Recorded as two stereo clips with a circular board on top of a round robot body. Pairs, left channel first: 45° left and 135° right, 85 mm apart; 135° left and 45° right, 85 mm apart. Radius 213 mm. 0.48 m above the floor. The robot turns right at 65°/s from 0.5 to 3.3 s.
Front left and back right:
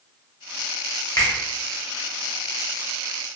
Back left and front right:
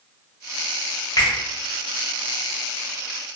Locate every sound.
1.2 s a finger snap: 90° left, 1.3 m; by 1.3 s 100° left, 1.3 m